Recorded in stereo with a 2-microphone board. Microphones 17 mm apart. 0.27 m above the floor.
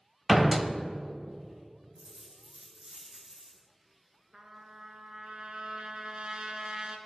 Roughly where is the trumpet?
Right.